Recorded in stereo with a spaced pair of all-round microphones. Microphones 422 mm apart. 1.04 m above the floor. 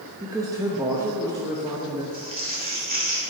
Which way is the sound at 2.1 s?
20° right (ahead or behind).